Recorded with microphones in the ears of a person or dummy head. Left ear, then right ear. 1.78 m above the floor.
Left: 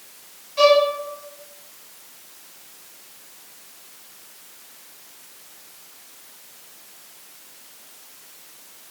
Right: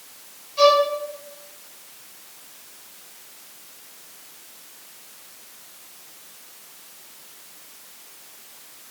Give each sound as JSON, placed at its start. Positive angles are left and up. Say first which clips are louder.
{"t": 0.6, "sound": "a violin", "louder": "left 1 dB", "side_deg": 10, "distance_m": 4.0}